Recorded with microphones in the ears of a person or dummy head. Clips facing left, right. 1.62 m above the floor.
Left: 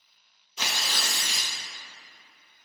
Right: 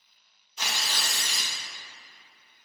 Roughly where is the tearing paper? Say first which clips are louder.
Left 1 dB; left.